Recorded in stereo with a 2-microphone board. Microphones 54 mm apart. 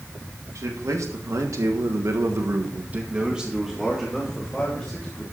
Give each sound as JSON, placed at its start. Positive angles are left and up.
{"t": 0.6, "sound": "a man speaking", "side_deg": -70, "distance_m": 3.0}